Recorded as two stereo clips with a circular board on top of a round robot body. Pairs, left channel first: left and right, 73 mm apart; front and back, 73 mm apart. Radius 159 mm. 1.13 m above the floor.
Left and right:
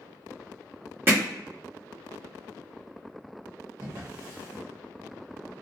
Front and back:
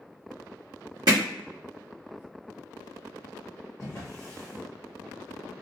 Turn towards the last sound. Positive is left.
turn(degrees=-55)